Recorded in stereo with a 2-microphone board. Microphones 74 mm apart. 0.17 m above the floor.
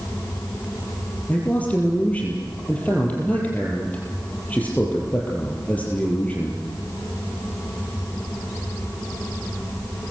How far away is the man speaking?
About 5.5 m.